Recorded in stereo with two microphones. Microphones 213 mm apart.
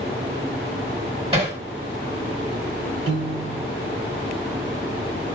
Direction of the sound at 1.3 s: 25° right (ahead or behind).